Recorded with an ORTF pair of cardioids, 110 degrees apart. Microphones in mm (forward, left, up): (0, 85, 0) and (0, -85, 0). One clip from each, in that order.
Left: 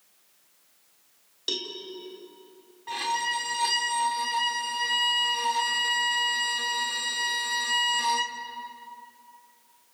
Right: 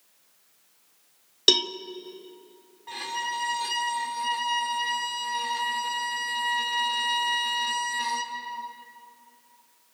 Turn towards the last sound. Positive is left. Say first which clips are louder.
# left 3 dB
turn(degrees=20)